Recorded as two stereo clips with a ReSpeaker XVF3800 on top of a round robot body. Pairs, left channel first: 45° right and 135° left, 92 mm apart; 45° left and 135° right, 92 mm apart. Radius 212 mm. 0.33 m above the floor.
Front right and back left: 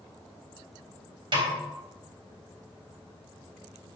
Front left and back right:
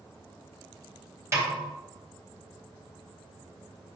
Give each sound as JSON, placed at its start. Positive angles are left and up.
{"t": 1.3, "sound": "a snare drum", "azimuth_deg": 170, "distance_m": 3.0}